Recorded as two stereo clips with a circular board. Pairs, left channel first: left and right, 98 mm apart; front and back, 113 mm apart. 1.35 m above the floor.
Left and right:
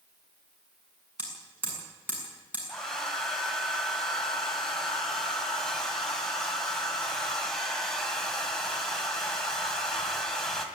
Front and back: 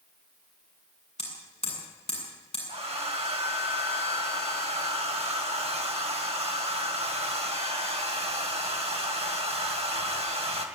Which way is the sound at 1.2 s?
15° right.